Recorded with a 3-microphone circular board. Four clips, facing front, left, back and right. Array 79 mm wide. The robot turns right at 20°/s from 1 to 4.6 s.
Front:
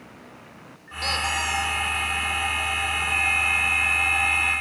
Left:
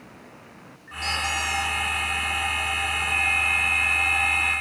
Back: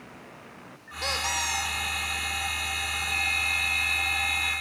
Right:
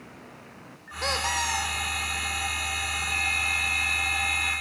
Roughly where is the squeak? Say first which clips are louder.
Even, front 4 dB; right.